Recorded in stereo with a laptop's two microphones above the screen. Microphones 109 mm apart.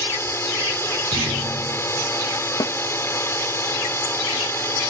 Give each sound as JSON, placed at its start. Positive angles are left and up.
{"t": 0.0, "sound": "a drone", "side_deg": 20}
{"t": 1.1, "sound": "a thud", "side_deg": -75}
{"t": 2.6, "sound": "a snare drum", "side_deg": 40}